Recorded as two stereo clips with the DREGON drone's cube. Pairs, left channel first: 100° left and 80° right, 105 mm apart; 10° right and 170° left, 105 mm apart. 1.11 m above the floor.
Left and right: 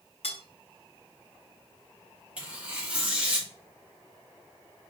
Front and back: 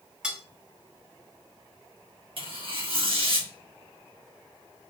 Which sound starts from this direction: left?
Cutlery clinking, at 0.2 s.